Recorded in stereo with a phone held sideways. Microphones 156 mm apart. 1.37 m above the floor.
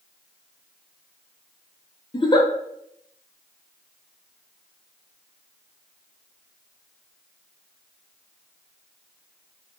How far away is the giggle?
About 0.6 m.